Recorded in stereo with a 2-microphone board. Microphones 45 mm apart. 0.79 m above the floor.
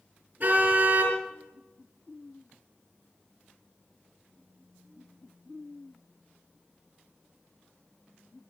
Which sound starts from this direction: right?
A car horn, at 0.4 s.